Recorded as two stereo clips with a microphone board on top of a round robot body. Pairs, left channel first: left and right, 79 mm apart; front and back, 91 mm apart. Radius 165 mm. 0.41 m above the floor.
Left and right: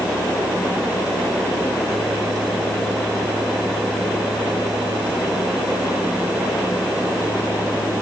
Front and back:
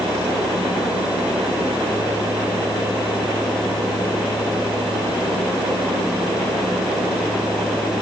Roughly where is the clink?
I don't hear a clink.